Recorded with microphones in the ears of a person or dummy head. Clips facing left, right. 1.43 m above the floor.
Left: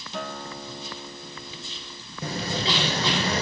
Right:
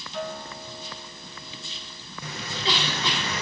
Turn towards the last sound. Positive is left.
turn(degrees=40)  # may be behind; listen again after turning